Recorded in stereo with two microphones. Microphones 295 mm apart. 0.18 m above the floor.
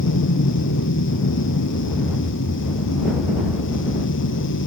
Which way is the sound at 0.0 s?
75° left (ahead or behind).